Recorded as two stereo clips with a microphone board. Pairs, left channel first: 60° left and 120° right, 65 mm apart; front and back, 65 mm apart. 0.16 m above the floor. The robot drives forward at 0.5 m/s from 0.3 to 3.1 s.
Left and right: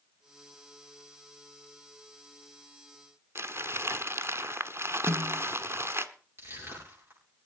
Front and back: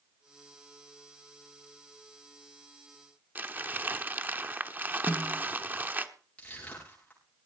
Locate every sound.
3.4 s crumpling: 135° right, 1.1 m
5.1 s a snare drum: 65° right, 0.8 m
6.4 s crushing: 70° right, 9.5 m